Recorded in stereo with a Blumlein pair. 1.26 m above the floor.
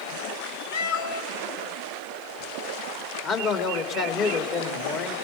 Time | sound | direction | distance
0.7 | a cat meowing | 55° left | 1.9 m
3.2 | a man speaking | 35° left | 2.5 m